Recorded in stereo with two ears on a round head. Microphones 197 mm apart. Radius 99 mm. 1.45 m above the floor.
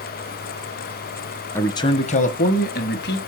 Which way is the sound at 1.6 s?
10° left (ahead or behind).